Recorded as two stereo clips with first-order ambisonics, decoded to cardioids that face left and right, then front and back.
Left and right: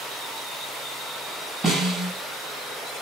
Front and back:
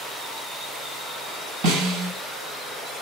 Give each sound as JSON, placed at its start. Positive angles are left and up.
{"t": 1.6, "sound": "a snare drum", "azimuth_deg": -170, "distance_m": 2.5}